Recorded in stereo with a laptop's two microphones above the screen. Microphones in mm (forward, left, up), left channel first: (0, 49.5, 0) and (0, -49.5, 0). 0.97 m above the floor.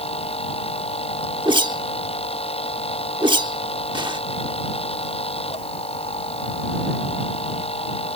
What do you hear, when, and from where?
0.0 s a machine running: 75° left (ahead or behind)
1.4 s a whoosh: 50° right (ahead or behind)